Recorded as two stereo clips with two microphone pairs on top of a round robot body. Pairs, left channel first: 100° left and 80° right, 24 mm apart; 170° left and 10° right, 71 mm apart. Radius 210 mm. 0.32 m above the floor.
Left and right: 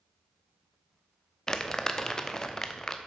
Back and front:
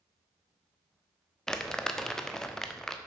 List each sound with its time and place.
1.5 s crumpling: 110° left, 1.4 m